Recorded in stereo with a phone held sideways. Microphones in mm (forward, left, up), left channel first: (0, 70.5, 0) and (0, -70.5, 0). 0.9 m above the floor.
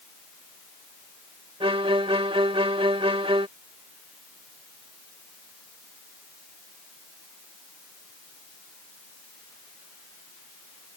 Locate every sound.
1.6 s a violin: 40° right (ahead or behind)